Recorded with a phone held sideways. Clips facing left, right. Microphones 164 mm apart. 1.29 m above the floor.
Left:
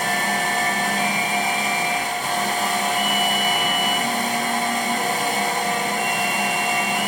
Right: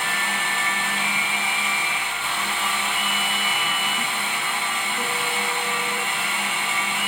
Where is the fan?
40° left (ahead or behind), 0.7 m.